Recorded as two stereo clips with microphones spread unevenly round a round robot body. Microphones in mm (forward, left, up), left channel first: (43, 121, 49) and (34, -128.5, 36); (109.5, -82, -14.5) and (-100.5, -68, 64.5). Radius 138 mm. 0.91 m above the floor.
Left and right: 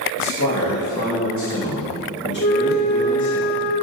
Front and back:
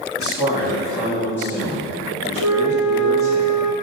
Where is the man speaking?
90° left, 1.8 m; by 3.4 s 30° left, 2 m.